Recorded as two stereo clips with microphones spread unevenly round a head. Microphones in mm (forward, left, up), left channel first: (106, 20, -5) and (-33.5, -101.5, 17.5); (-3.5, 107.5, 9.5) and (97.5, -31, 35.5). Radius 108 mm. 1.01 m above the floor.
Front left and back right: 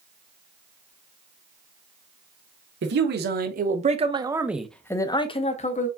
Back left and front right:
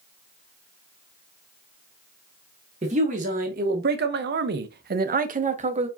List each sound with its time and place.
2.8 s a man speaking: 115° right, 1.2 m; by 5.9 s straight ahead, 1.1 m